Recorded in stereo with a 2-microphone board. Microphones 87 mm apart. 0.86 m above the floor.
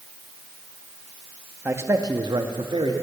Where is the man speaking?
25° right (ahead or behind), 0.9 m; by 2.9 s 70° right (ahead or behind), 1.4 m.